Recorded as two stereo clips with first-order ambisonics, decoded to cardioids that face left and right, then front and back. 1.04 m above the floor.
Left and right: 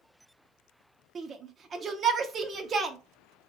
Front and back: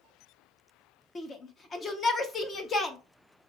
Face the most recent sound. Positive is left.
turn(degrees=-50)